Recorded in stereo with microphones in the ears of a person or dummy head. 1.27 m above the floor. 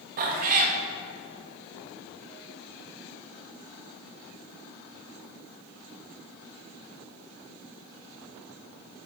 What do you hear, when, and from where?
0.2 s a cat meowing: 50° right (ahead or behind), 0.7 m